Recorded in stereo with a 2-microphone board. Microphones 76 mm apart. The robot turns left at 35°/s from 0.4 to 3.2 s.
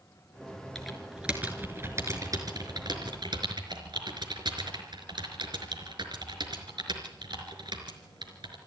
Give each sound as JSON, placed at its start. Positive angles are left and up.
{"t": 0.8, "sound": "typing on a keyboard", "side_deg": 5, "distance_m": 4.0}